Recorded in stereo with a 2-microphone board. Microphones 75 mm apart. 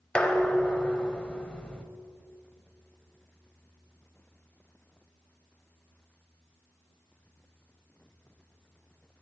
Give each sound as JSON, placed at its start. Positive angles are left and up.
{"t": 0.1, "sound": "dishes clattering", "side_deg": 15, "distance_m": 0.7}